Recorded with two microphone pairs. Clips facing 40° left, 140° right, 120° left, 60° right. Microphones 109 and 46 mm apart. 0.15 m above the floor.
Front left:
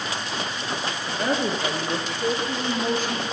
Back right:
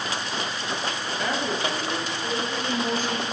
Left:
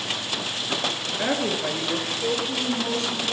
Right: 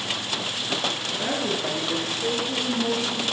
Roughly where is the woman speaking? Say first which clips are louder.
Front left 3 dB, left 2 dB; left.